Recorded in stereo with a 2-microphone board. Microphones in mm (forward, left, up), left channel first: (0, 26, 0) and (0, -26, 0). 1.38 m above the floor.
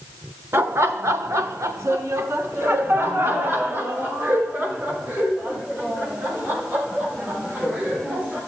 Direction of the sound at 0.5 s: 55° right (ahead or behind).